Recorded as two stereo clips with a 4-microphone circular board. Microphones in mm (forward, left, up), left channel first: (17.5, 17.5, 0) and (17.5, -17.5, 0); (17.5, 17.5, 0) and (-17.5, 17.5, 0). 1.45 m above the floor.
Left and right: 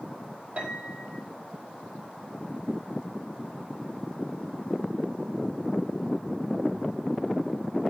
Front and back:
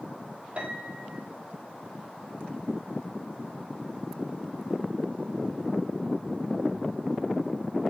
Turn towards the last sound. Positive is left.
turn(degrees=-135)